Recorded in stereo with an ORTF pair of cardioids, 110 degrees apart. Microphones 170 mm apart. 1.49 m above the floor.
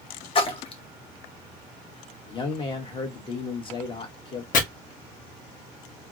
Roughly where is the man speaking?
Ahead left.